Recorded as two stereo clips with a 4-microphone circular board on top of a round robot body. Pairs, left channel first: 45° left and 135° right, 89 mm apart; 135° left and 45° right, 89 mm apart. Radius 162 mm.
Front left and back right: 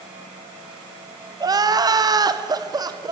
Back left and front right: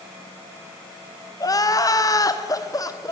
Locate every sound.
1.4 s crying: straight behind, 1.3 m